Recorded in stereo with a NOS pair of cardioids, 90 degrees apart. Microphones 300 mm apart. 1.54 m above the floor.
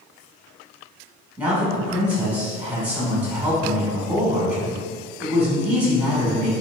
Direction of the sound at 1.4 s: 5° right.